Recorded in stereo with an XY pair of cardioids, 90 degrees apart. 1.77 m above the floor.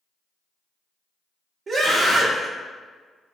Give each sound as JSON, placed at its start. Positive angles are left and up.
{"t": 1.7, "sound": "a scream", "azimuth_deg": -45, "distance_m": 0.9}